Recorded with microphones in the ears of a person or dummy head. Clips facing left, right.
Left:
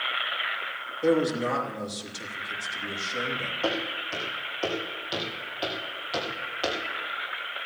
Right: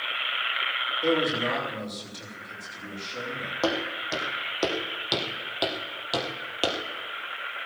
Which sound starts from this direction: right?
Footsteps, at 3.6 s.